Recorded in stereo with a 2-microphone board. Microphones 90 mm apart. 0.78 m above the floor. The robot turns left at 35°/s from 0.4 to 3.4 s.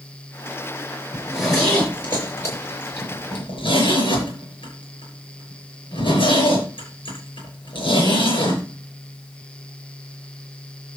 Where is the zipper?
10° right (ahead or behind), 6.5 m; by 8.6 s 70° left (ahead or behind), 6.5 m.